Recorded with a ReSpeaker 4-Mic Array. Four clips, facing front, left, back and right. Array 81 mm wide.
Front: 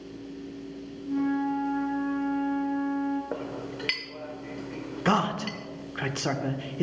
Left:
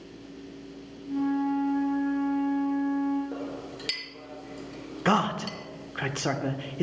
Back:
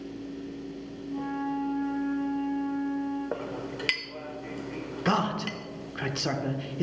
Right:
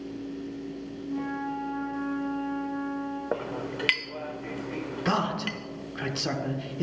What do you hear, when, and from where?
1.1 s a flute: 5° left, 4.5 m
3.3 s a clink: 100° right, 0.6 m
5.0 s a man speaking: 65° left, 0.7 m